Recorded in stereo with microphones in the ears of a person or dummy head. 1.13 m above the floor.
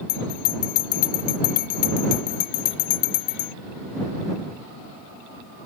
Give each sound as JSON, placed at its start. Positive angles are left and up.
{"t": 0.1, "sound": "a bell", "side_deg": 40}